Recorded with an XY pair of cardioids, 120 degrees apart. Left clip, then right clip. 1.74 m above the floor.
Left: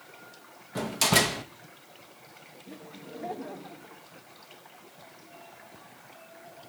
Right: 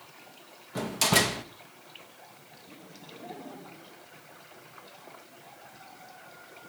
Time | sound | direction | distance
0.8 | a door slam | 5° left | 1.9 m
2.7 | laughter | 45° left | 4 m